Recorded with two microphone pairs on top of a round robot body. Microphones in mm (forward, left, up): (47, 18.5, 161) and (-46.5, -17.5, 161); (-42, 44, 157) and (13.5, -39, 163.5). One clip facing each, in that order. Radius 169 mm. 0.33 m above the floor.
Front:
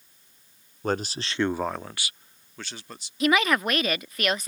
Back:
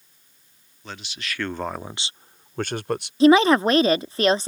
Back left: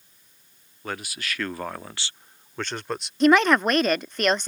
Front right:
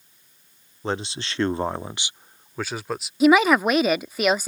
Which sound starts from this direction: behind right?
A woman speaking, at 3.2 s.